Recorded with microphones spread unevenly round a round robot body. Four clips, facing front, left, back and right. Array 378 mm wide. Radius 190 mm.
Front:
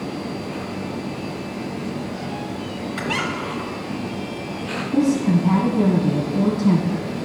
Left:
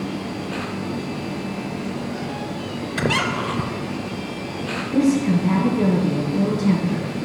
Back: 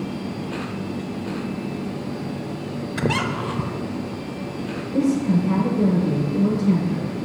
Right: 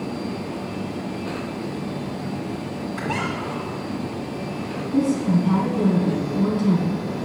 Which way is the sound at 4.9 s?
10° left.